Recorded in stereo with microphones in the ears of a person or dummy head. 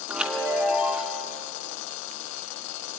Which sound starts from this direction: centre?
A chime, at 0.1 s.